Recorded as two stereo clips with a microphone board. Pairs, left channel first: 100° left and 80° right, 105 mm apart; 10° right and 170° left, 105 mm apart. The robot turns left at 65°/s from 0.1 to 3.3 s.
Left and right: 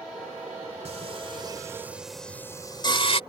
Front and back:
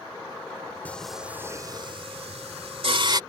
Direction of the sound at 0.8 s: 85° right.